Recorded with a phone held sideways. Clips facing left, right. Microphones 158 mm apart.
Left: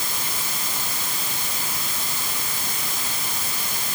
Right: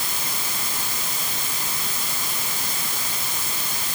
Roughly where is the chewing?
No chewing in this recording.